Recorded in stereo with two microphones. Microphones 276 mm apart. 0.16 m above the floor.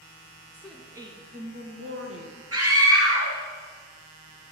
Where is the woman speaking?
5° left (ahead or behind), 1.2 m; by 2.4 s 55° right (ahead or behind), 1.8 m.